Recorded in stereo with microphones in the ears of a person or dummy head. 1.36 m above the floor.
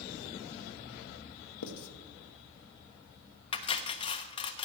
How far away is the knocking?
I don't hear knocking.